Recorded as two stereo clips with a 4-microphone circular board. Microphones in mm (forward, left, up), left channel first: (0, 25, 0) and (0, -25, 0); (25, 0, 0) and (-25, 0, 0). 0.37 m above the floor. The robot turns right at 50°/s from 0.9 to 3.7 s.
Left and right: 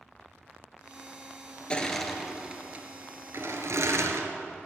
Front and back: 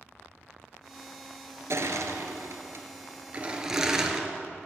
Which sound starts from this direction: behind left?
Crushing, at 1.7 s.